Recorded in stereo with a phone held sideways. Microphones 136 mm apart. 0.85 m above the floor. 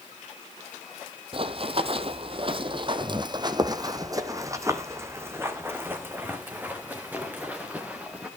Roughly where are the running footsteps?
Right.